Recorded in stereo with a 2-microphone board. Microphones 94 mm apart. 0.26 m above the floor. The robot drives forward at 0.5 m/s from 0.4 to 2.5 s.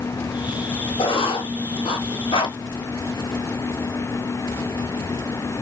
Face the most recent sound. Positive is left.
turn(degrees=60)  # may be behind; listen again after turning